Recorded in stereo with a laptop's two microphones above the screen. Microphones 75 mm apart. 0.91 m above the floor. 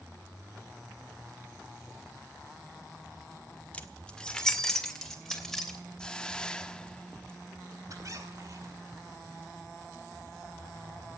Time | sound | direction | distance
3.7 | keys jangling | 20° left (ahead or behind) | 1.3 m
6.0 | a hiss | 15° left (ahead or behind) | 0.6 m
7.9 | a squeak | 50° right (ahead or behind) | 2.5 m